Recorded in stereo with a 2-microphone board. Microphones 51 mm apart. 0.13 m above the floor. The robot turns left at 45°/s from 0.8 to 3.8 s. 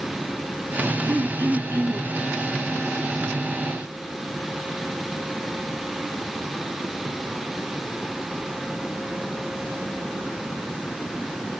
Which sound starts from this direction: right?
Throat clearing, at 1.1 s.